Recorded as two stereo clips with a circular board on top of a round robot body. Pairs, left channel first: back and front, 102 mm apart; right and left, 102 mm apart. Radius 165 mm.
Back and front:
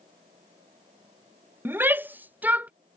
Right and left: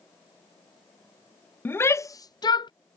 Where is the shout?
40° right; by 2.7 s 70° right.